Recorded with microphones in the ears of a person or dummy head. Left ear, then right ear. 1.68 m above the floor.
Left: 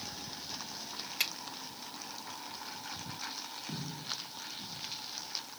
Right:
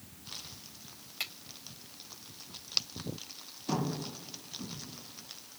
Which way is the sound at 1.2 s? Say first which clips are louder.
Left 4 dB; 15° left (ahead or behind).